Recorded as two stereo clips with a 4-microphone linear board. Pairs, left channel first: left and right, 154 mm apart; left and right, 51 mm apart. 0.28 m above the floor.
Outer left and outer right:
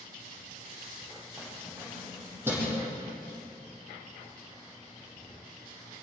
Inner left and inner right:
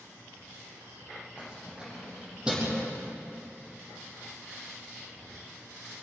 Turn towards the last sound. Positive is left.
turn(degrees=-15)  # may be behind; listen again after turning